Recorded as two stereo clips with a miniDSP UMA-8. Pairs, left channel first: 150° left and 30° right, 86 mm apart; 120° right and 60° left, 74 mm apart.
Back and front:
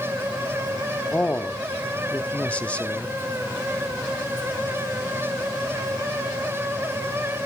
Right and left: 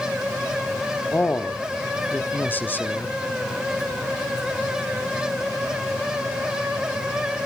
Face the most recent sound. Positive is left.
turn(degrees=-150)